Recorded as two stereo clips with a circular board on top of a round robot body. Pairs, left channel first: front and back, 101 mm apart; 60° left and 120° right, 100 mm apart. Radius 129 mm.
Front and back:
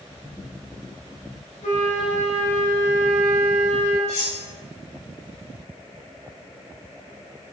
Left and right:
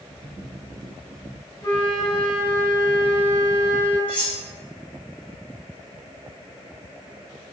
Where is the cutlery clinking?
15° right, 3 m.